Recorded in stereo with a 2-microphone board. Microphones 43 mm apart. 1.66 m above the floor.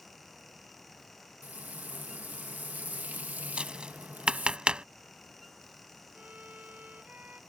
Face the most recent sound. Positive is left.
turn(degrees=-45)  # may be behind; listen again after turning